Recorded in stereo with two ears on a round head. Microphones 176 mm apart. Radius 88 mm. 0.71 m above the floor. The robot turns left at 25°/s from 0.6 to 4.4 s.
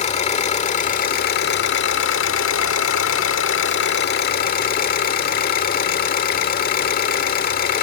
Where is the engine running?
145° left, 1.7 m; by 7.8 s 50° left, 1.7 m.